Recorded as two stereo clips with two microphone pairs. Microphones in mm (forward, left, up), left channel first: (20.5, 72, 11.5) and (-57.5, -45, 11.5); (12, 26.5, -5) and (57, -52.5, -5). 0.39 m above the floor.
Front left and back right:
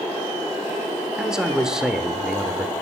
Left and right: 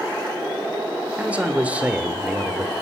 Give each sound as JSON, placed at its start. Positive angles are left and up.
{"t": 1.2, "sound": "a man speaking", "azimuth_deg": -50, "distance_m": 0.8}